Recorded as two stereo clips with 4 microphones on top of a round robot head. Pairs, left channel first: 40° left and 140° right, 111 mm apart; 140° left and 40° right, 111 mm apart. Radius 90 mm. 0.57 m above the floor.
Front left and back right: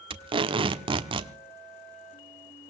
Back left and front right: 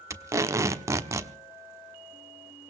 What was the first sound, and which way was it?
Tape being pulled, 105° right.